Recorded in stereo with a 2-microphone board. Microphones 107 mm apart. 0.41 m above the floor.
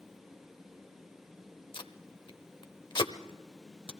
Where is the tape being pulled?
50° left (ahead or behind), 0.8 m.